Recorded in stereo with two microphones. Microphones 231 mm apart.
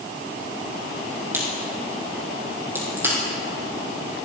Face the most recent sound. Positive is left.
turn(degrees=-10)  # may be behind; listen again after turning